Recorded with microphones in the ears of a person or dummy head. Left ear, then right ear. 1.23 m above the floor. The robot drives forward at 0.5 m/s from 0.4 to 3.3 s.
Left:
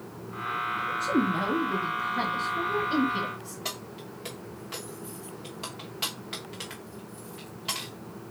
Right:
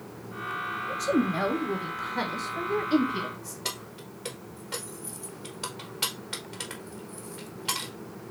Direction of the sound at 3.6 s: 5° left (ahead or behind).